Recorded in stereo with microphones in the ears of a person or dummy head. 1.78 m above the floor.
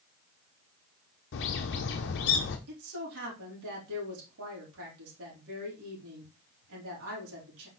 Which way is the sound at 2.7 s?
80° right.